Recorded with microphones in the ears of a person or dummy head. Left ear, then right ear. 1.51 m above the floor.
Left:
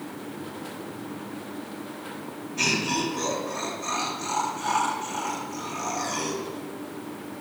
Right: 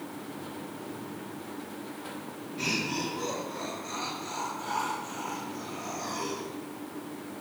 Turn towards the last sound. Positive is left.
turn(degrees=75)  # may be behind; listen again after turning